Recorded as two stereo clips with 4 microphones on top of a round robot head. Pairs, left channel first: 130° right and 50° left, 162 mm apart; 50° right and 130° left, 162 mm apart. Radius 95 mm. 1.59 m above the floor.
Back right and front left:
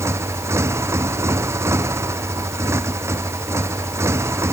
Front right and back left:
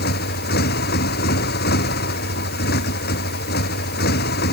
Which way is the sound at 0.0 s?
25° right.